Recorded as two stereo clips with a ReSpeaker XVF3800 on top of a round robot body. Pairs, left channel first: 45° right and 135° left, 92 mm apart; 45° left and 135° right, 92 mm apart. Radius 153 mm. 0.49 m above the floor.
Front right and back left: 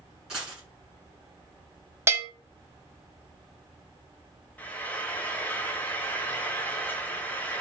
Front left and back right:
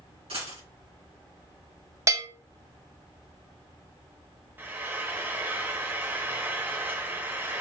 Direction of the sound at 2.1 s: 175° right.